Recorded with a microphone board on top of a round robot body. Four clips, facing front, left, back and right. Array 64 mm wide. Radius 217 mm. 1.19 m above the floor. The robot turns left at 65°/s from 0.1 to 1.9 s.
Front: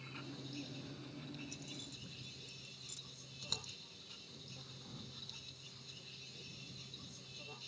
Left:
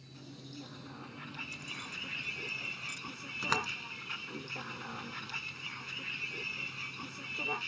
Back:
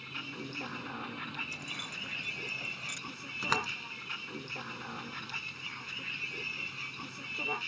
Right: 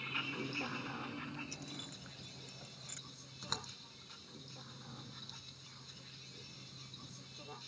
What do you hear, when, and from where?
0.0 s a vehicle: 110° right; by 7.7 s 135° left
1.5 s keys jangling: 160° right; by 3.0 s 175° left
3.4 s a door slam: 140° left